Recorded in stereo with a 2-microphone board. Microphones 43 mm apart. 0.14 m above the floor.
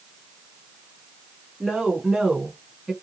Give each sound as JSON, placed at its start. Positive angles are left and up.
{"t": 1.6, "sound": "a woman speaking", "side_deg": -5, "distance_m": 1.3}